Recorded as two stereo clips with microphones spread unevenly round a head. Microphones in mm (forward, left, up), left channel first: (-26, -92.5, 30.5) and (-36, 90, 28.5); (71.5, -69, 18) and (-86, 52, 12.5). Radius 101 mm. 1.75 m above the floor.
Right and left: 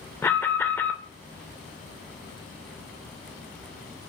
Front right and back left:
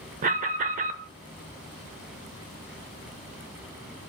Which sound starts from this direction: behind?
An alarm, at 0.2 s.